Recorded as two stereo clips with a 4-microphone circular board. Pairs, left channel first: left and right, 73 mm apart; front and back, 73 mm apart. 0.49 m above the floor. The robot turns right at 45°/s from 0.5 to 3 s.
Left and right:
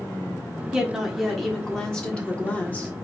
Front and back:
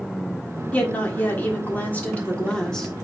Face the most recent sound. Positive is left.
turn(degrees=75)